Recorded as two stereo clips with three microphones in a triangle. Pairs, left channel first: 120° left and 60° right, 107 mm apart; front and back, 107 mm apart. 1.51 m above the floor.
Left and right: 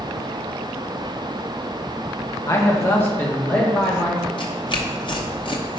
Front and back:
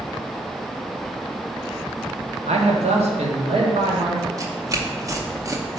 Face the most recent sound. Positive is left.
turn(degrees=130)